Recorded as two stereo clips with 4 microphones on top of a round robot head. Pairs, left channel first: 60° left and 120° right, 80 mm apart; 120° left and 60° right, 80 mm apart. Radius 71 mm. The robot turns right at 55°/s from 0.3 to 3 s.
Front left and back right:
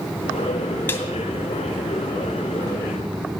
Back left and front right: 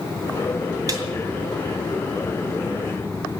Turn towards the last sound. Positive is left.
turn(degrees=105)